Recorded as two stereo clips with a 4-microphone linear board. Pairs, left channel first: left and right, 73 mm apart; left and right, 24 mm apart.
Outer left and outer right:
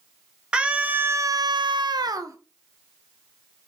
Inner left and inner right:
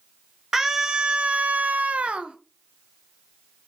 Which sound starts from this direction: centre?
A scream, at 0.5 s.